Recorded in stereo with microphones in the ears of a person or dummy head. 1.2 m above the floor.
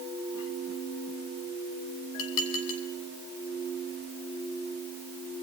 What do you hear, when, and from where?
2.2 s dishes clattering: 70° left (ahead or behind), 4 m